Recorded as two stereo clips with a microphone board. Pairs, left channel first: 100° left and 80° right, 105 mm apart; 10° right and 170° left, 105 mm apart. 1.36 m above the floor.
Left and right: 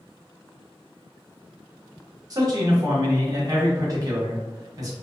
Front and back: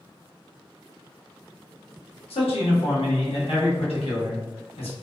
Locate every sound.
2.3 s a man speaking: 25° right, 1.1 m